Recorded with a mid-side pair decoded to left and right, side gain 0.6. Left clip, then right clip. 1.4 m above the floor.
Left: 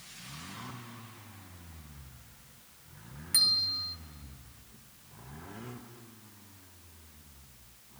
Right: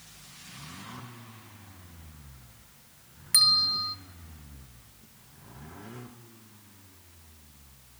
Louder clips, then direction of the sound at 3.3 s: Right 5 dB; 25° right.